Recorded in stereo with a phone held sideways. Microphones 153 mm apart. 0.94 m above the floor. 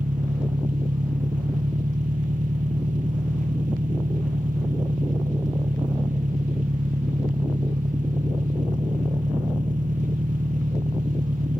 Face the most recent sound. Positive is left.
turn(degrees=-70)  # may be behind; listen again after turning